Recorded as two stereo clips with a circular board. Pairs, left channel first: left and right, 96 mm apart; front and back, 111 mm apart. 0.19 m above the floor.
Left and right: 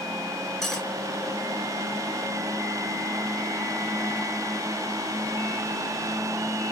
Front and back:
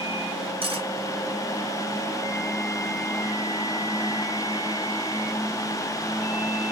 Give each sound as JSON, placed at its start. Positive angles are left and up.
{"t": 0.6, "sound": "cutlery clinking", "azimuth_deg": 175, "distance_m": 1.4}